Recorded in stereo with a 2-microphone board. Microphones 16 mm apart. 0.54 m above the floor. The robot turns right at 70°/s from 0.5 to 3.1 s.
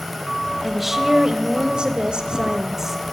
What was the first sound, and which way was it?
A woman speaking, 175° right.